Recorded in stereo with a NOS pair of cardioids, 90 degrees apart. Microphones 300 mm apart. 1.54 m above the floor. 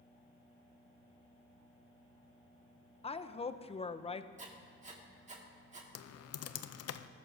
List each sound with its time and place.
3.0 s a woman speaking: 20° left, 0.7 m
4.4 s writing: 25° right, 2 m
6.0 s typing on a keyboard: 60° left, 0.6 m